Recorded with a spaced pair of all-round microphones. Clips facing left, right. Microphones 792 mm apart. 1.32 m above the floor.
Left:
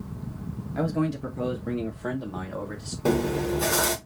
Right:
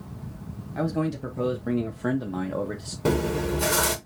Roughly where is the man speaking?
Centre.